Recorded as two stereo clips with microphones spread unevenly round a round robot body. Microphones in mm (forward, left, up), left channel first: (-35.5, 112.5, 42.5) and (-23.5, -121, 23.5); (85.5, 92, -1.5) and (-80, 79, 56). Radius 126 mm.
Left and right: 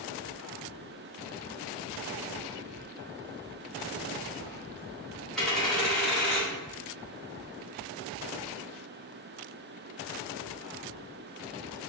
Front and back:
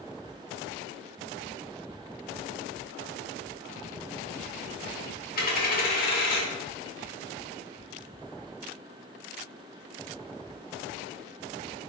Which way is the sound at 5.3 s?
5° left.